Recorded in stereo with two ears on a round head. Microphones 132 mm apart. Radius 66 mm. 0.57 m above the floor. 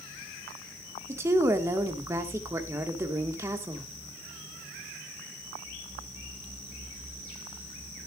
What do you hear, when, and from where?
1.1 s a woman speaking: 20° right (ahead or behind), 1.4 m